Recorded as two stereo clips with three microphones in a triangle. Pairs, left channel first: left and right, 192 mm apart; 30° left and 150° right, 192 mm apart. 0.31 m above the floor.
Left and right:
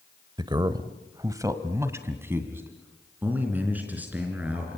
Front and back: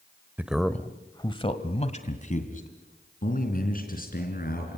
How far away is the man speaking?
About 0.9 m.